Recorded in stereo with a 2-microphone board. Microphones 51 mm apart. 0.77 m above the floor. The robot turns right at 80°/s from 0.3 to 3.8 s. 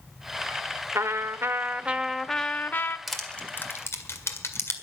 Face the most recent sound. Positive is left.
turn(degrees=55)  # may be behind; listen again after turning